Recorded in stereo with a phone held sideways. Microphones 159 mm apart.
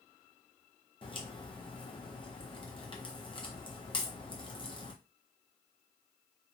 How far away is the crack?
About 0.6 m.